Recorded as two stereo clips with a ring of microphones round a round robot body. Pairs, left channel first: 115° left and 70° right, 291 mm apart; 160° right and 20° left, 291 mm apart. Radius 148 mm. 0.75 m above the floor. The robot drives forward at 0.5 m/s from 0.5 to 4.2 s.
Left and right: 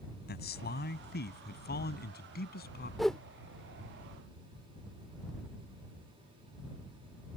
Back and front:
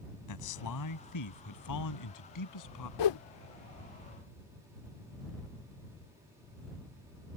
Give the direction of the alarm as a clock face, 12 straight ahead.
I don't hear an alarm.